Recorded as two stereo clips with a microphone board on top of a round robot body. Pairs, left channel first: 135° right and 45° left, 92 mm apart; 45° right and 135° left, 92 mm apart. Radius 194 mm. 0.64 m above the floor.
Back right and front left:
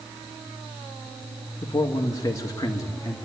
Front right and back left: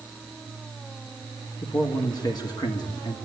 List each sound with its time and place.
1.6 s a man speaking: 85° right, 1.9 m